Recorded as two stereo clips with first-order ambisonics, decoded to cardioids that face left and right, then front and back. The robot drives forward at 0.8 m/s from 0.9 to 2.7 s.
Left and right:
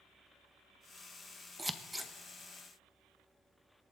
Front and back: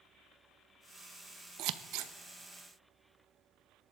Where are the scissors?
170° right, 0.7 m; by 2.1 s 175° right, 1.0 m.